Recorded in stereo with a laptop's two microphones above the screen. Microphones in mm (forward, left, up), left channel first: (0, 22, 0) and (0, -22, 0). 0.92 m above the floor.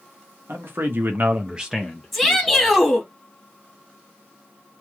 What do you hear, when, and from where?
0.5 s a man speaking: 60° right (ahead or behind), 1.2 m; by 2.8 s 30° left (ahead or behind), 1.4 m
2.1 s a shout: centre (ahead or behind), 1.7 m